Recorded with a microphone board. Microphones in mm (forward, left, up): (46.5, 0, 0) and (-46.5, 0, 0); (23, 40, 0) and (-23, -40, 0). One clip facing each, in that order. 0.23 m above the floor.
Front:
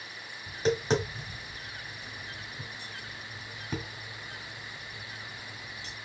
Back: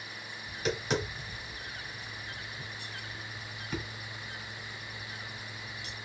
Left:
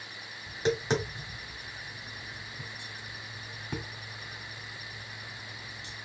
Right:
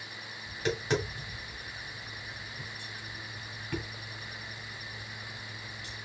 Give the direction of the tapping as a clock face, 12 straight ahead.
12 o'clock.